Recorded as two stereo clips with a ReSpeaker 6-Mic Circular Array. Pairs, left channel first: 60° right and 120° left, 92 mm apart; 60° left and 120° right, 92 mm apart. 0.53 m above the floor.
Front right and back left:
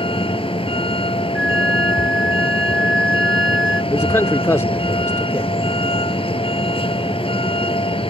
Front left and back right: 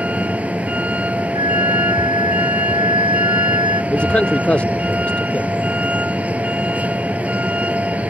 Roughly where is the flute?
Behind right.